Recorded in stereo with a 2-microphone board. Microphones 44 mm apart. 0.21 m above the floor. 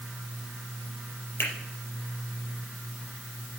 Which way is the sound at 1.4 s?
55° left (ahead or behind).